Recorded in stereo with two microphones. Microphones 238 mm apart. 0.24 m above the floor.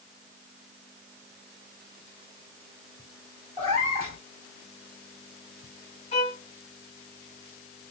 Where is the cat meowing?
25° right (ahead or behind), 1.7 m.